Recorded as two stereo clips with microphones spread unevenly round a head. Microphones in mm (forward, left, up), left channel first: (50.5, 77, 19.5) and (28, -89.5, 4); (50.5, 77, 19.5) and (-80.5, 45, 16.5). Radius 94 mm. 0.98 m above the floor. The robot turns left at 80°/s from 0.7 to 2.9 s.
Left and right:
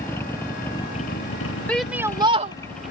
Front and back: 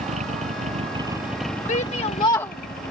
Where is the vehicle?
160° left; by 2.9 s 15° right.